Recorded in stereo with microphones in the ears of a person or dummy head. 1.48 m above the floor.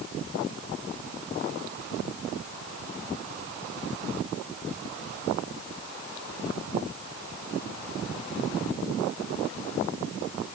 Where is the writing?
I don't hear writing.